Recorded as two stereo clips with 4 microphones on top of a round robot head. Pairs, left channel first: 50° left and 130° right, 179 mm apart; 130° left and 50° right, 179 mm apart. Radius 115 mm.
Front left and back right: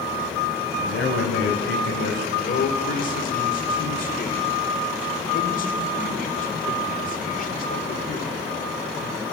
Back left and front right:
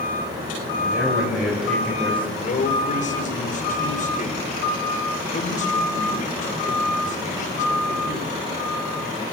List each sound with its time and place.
0.8 s a man speaking: 30° left, 5.5 m; by 2.3 s 50° left, 4 m
2.4 s a man speaking: 85° left, 2.5 m